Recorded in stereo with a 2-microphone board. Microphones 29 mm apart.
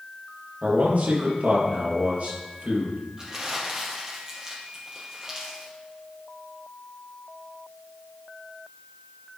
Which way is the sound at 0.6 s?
55° right (ahead or behind).